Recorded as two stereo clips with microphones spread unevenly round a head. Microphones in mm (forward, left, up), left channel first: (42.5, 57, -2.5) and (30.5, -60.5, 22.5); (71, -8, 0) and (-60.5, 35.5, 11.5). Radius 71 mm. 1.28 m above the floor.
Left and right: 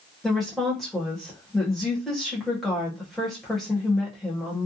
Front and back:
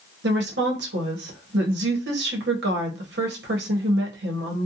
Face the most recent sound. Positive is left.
turn(degrees=170)